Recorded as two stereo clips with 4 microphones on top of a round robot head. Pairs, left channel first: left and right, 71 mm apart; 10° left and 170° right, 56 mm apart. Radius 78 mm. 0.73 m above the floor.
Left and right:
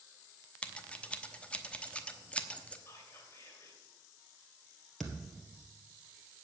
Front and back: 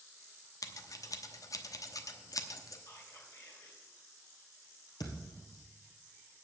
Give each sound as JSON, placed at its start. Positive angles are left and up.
{"t": 0.6, "sound": "scissors", "azimuth_deg": 15, "distance_m": 1.0}
{"t": 2.9, "sound": "whispering", "azimuth_deg": 35, "distance_m": 2.5}
{"t": 5.0, "sound": "a thud", "azimuth_deg": 0, "distance_m": 1.7}